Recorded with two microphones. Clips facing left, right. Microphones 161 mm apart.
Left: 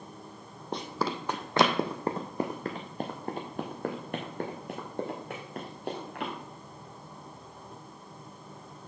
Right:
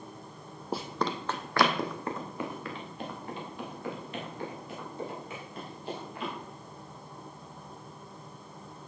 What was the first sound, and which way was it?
Running footsteps, 5° right (ahead or behind).